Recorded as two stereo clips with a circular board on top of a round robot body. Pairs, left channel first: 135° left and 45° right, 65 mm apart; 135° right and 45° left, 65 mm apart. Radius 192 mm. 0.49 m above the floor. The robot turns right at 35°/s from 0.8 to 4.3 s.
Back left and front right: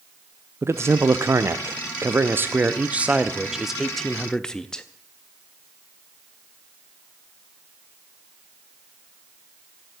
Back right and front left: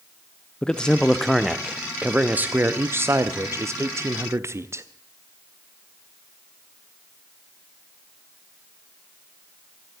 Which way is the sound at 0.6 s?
60° right.